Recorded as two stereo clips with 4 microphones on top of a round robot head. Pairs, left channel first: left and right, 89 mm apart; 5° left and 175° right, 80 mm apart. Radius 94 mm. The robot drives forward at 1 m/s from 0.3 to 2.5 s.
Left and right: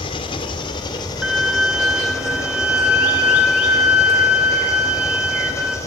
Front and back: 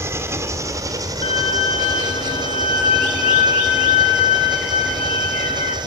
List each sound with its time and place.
0.0 s an engine running: 125° left, 2.5 m; by 5.9 s 150° left, 4 m
1.2 s a violin: 5° right, 8 m; by 5.8 s 10° right, 6.5 m